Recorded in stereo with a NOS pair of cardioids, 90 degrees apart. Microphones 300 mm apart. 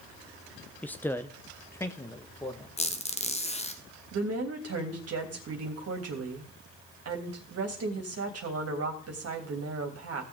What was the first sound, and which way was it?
A man speaking, 5° left.